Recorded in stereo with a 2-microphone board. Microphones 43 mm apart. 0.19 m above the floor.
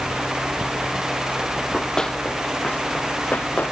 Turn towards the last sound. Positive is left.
turn(degrees=45)  # may be behind; listen again after turning